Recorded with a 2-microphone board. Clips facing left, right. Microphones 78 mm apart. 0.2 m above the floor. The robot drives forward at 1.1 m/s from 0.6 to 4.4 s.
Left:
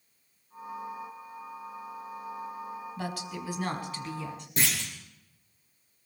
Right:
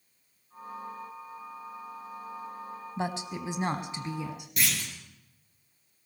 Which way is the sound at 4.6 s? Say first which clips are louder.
Left 1 dB; 30° left (ahead or behind).